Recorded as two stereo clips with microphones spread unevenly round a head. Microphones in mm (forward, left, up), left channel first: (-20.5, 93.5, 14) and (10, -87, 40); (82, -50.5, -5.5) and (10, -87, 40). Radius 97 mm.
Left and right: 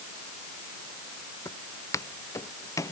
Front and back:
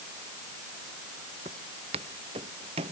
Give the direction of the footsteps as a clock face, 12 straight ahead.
6 o'clock.